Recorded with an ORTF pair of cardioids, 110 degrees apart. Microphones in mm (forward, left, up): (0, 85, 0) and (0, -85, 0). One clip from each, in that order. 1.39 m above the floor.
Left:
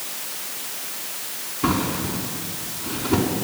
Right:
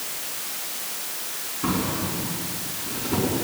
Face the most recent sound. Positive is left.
turn(degrees=35)